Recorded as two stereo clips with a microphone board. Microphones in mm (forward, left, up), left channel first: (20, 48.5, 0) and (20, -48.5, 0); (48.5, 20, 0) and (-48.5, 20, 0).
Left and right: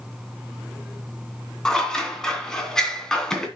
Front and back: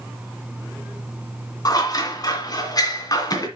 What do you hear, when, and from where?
1.6 s scissors: 10° left, 2 m